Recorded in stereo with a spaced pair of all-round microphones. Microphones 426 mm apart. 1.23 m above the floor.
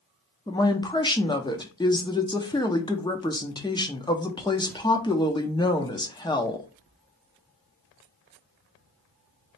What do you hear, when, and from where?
0.5 s a woman speaking: 10° left (ahead or behind), 0.7 m